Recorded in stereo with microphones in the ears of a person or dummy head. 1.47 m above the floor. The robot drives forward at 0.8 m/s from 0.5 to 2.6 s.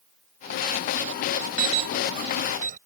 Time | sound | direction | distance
1.6 | an alarm | 55° right (ahead or behind) | ?